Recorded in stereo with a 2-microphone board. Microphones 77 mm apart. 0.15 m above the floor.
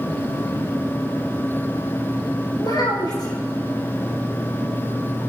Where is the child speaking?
60° left (ahead or behind), 6 m.